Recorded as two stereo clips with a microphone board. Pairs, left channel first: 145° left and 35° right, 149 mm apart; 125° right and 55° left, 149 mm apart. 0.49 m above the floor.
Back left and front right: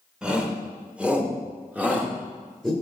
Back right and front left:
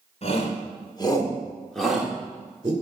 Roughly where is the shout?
Behind right.